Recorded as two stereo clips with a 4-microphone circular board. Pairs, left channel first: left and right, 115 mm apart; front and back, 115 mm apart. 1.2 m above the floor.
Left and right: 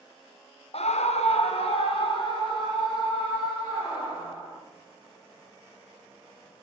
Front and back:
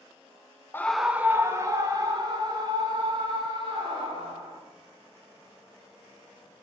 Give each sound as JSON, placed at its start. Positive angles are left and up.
{"t": 0.7, "sound": "a scream", "azimuth_deg": 70, "distance_m": 0.8}